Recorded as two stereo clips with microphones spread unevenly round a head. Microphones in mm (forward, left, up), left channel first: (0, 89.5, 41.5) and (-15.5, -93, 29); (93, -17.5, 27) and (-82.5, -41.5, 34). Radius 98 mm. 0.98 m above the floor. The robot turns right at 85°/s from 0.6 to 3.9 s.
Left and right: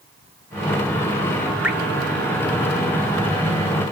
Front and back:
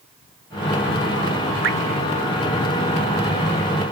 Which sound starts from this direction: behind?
Dripping, at 1.6 s.